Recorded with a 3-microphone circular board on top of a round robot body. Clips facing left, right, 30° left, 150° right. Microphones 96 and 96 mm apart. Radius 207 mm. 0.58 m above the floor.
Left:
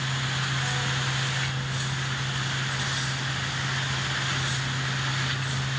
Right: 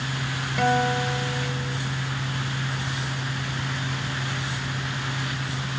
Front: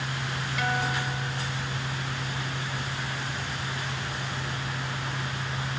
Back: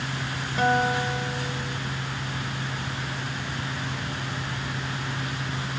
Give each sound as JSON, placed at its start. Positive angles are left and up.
{"t": 0.6, "sound": "a guitar", "azimuth_deg": -95}